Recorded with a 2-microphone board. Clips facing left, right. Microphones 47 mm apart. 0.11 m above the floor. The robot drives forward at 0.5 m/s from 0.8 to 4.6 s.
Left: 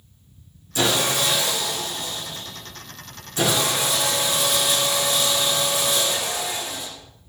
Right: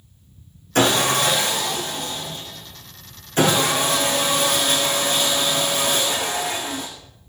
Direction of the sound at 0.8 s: 55° right (ahead or behind).